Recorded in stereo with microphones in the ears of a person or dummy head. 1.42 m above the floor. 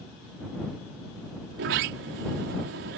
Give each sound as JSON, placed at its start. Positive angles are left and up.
{"t": 1.5, "sound": "a sliding door", "side_deg": -50}